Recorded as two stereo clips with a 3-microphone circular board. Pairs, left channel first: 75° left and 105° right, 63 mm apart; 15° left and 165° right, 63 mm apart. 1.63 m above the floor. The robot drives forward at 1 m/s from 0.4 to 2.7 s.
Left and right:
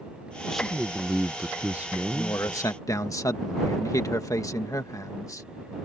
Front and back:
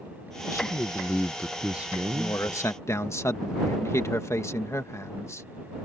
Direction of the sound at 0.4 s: 10° right.